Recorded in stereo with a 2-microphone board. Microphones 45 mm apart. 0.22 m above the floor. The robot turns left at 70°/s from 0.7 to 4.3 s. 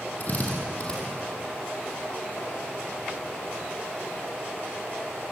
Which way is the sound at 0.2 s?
35° left (ahead or behind).